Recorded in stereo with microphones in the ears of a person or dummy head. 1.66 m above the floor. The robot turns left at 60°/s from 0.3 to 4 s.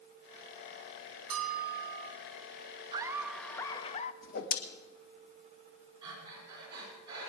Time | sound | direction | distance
1.3 | a bell | 90° right | 3.5 m
2.9 | laughter | 150° right | 0.8 m
4.2 | a whoosh | 50° left (ahead or behind) | 1.5 m
6.0 | breathing | 20° right (ahead or behind) | 5.5 m